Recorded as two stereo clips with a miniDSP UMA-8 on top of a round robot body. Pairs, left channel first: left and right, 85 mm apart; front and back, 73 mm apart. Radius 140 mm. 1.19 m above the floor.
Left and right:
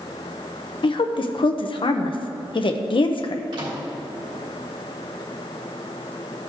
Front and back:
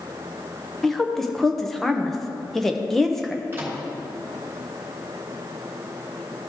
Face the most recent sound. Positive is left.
turn(degrees=-120)